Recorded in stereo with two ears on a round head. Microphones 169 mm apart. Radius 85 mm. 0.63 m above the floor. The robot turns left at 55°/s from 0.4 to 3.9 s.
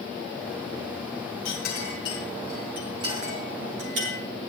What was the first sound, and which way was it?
A clink, 65° left (ahead or behind).